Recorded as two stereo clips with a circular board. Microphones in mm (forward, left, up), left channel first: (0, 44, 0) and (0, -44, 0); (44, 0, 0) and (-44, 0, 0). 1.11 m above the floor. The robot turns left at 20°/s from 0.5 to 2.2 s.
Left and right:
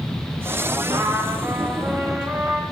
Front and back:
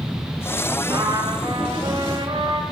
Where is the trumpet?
135° right, 2 m; by 2.6 s 160° right, 2 m.